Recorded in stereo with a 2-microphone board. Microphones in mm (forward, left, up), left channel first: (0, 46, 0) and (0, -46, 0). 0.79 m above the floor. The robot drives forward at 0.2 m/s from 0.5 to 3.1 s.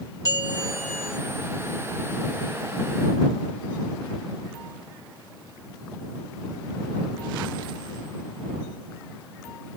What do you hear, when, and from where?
0.2 s a bell: 35° left (ahead or behind), 1.6 m